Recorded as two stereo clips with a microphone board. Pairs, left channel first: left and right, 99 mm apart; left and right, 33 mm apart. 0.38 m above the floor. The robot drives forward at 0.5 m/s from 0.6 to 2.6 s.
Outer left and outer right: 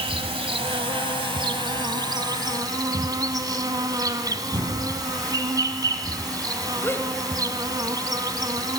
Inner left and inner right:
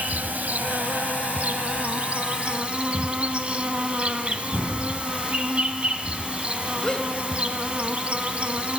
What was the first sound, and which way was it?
An insect, 70° right (ahead or behind).